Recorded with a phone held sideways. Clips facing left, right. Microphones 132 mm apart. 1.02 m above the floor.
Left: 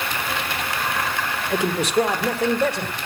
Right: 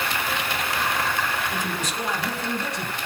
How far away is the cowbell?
No cowbell in this recording.